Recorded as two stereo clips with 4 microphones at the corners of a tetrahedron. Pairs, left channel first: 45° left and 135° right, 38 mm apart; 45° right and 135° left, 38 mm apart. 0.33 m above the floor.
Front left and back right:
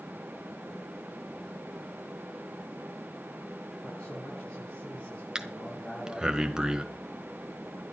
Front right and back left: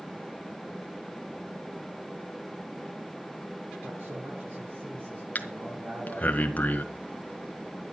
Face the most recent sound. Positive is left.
turn(degrees=-65)